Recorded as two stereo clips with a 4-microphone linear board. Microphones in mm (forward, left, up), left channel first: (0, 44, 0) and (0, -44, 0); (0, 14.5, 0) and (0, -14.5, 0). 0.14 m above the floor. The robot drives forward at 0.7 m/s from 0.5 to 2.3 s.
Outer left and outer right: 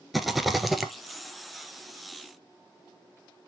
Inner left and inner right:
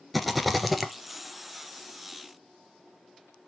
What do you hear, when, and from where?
0.1 s a rattle: centre (ahead or behind), 1.1 m